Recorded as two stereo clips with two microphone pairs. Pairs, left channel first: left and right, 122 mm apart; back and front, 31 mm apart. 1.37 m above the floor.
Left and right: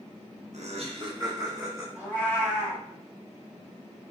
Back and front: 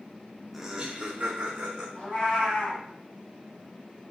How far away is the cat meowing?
About 1.7 m.